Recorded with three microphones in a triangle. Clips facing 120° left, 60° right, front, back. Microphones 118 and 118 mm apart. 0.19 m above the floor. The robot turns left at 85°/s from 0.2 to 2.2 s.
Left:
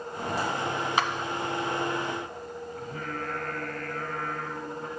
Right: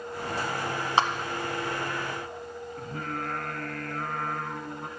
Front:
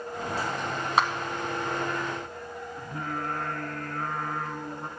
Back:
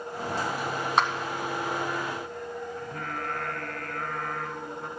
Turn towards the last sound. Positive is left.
turn(degrees=-60)